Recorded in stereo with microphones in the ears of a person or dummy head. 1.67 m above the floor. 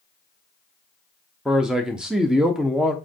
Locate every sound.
1.4 s a man speaking: 5° right (ahead or behind), 0.6 m